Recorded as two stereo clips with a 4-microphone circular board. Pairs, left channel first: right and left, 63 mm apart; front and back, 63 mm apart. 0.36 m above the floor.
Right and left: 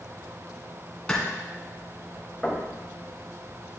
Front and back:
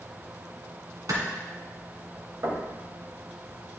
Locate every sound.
1.1 s a clap: 165° right, 2.5 m
2.4 s knocking: 175° right, 1.8 m